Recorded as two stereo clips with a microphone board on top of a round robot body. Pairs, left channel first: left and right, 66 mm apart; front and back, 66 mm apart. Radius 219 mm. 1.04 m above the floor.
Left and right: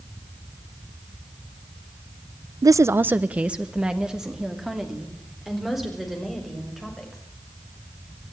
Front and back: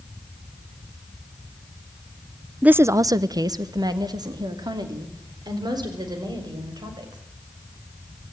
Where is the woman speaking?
105° right, 0.6 m; by 7.2 s 175° right, 6.5 m.